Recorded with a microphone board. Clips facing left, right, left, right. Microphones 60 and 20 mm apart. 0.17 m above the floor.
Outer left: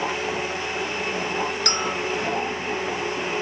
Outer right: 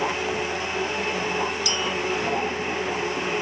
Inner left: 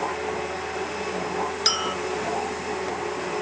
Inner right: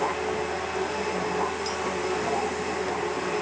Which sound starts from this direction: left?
A clink, at 1.6 s.